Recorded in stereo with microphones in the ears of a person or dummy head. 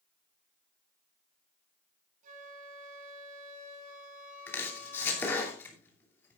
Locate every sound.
2.2 s a flute: 45° right (ahead or behind), 9 m
4.5 s chopping: 10° left (ahead or behind), 2.5 m